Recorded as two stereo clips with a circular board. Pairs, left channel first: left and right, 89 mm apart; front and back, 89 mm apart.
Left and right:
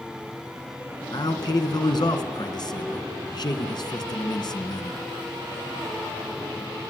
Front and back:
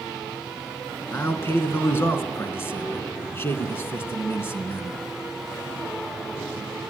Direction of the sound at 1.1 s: 60° left.